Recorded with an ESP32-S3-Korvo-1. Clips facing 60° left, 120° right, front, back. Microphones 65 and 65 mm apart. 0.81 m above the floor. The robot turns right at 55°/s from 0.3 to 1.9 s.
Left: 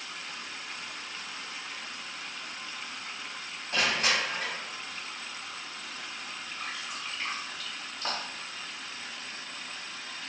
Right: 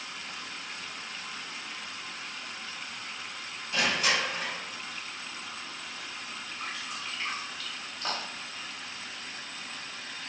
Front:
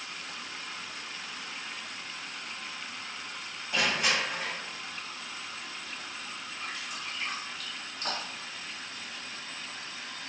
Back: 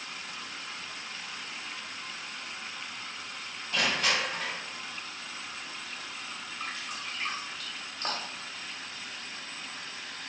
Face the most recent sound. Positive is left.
turn(degrees=145)